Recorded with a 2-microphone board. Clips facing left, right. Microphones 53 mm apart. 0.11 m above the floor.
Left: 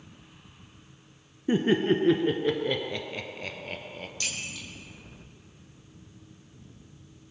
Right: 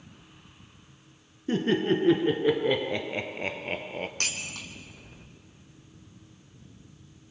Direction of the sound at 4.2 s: 55° right (ahead or behind).